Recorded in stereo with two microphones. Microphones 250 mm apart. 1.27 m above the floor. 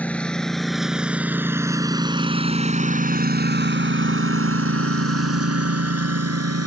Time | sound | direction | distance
0.0 | a lawn mower | 5° left (ahead or behind) | ?